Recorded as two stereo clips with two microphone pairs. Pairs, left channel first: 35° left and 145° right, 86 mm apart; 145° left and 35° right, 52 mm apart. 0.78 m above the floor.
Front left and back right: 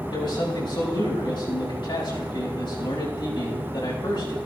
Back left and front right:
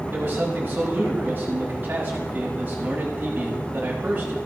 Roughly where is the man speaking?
Ahead.